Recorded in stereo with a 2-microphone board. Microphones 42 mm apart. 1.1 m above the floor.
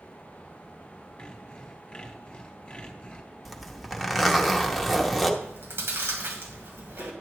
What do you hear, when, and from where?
1.2 s sawing: 20° left (ahead or behind), 1.0 m
3.5 s a zipper: centre (ahead or behind), 0.9 m
5.4 s chewing: 65° right (ahead or behind), 1.8 m